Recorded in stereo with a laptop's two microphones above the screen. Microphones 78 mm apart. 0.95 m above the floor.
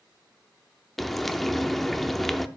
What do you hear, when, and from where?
1.0 s frying: 5° left (ahead or behind), 0.6 m